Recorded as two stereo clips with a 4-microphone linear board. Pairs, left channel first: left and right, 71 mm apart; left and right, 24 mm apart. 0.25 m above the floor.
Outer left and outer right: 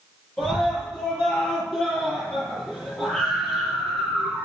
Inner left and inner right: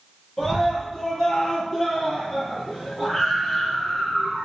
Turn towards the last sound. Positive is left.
turn(degrees=15)  # may be behind; listen again after turning